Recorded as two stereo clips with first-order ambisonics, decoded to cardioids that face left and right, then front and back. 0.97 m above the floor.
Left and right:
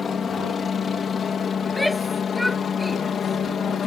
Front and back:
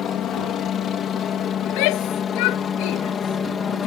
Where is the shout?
Straight ahead.